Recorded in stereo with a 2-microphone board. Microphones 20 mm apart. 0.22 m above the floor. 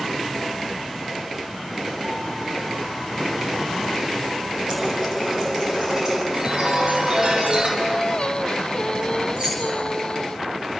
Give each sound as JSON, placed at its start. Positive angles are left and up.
{"t": 4.7, "sound": "a running tap", "side_deg": -25, "distance_m": 6.0}
{"t": 6.3, "sound": "a chime", "side_deg": -35, "distance_m": 5.0}
{"t": 7.8, "sound": "singing", "side_deg": 45, "distance_m": 0.6}
{"t": 9.4, "sound": "keys jangling", "side_deg": -30, "distance_m": 4.5}